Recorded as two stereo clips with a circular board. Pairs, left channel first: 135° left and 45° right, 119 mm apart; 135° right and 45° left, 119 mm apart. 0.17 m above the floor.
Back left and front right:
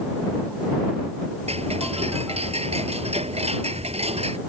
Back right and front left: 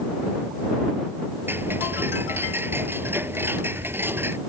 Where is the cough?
I don't hear a cough.